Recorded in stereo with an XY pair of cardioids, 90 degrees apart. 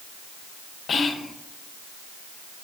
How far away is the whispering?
About 0.7 m.